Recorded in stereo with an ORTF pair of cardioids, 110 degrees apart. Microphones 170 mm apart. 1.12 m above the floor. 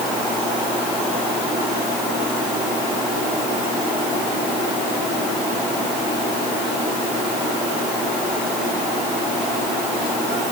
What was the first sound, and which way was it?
Only background noise.